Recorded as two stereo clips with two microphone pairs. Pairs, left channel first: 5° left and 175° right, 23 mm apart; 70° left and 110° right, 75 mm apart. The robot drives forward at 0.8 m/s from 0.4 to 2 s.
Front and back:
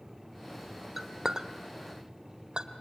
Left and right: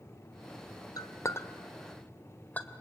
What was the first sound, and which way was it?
A clink, 110° left.